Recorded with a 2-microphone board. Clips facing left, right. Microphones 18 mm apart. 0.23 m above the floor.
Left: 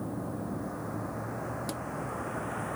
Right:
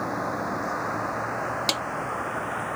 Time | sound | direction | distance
0.0 | a vehicle | 80° right | ?
1.7 | a snare drum | 80° right | ?